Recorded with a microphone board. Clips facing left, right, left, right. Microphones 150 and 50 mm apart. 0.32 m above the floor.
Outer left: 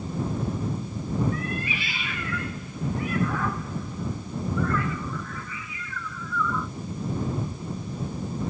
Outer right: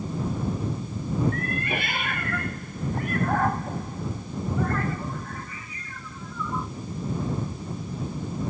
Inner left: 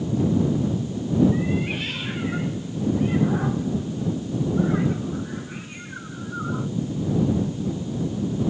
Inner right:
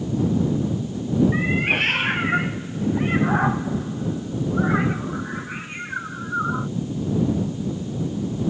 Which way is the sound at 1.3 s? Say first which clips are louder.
Outer right 1 dB, inner right 4 dB; 55° right (ahead or behind).